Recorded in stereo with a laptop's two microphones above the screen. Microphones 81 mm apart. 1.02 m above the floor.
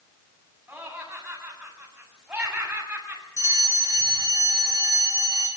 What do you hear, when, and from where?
0.7 s laughter: 15° right (ahead or behind), 8 m
3.4 s a fire alarm: 45° right (ahead or behind), 5 m